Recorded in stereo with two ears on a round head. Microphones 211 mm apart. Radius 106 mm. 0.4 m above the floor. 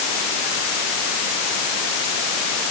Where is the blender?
No blender in this recording.